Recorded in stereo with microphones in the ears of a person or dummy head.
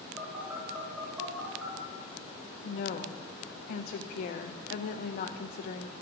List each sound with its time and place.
0.2 s a phone buzzing: centre (ahead or behind), 1.5 m
2.6 s a woman speaking: 50° left (ahead or behind), 0.5 m